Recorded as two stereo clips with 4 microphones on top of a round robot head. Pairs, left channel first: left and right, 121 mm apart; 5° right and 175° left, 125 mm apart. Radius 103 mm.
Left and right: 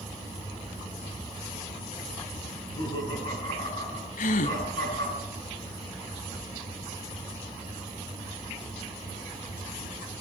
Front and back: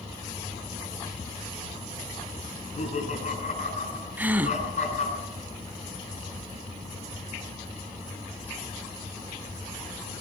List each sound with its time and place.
2.5 s laughter: 25° left, 8 m
4.2 s a gasp: 100° left, 1.2 m